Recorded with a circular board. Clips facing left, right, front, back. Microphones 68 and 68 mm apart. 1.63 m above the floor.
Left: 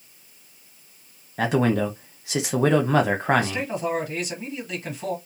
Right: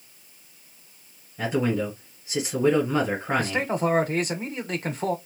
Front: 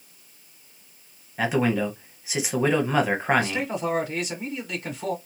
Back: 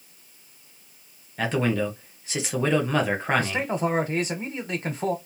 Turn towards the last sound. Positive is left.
turn(degrees=-130)